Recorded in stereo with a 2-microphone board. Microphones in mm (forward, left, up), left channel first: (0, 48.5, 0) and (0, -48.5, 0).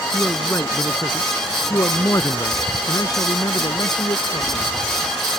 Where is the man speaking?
20° left (ahead or behind); by 4.7 s 50° left (ahead or behind).